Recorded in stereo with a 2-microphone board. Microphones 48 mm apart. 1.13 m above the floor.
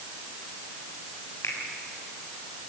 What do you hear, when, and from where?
1.4 s a finger snap: 85° left, 5.5 m